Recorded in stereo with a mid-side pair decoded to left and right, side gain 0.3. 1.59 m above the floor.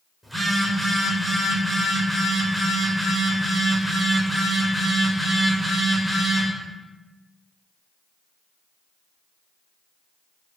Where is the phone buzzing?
15° right, 1.5 m.